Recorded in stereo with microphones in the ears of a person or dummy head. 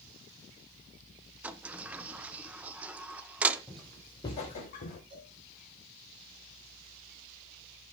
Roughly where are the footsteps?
Centre.